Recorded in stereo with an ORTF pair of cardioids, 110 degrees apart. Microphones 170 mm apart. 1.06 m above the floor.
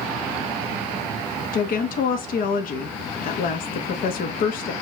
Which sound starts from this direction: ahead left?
A woman speaking, at 1.5 s.